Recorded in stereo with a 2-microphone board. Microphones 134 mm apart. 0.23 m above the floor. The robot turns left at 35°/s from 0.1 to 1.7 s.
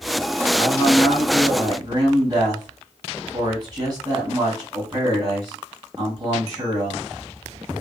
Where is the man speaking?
5° left, 2 m; by 7.0 s 35° right, 2 m.